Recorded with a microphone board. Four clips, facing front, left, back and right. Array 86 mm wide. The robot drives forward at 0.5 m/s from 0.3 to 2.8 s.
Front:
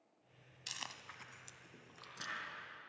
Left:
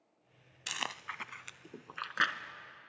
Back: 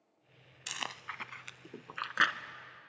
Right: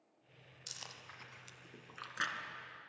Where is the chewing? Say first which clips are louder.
Left 14 dB, back 9 dB; 115° left, 0.5 m; by 2.4 s 155° left, 1.2 m.